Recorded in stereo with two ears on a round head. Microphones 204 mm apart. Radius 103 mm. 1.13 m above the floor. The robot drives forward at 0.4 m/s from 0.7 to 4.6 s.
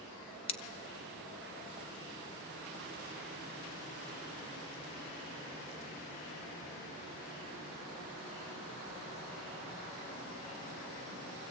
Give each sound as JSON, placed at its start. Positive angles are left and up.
{"t": 0.5, "sound": "scissors", "side_deg": 25, "distance_m": 1.5}